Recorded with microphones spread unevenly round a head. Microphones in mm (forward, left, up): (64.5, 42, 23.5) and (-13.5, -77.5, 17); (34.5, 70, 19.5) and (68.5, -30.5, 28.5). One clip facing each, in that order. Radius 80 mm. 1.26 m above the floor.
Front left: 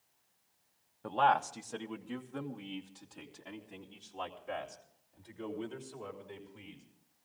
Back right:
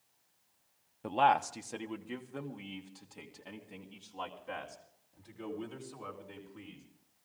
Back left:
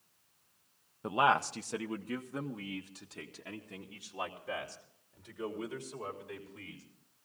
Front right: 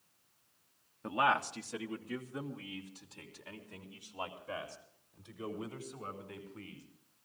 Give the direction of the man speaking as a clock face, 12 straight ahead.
6 o'clock.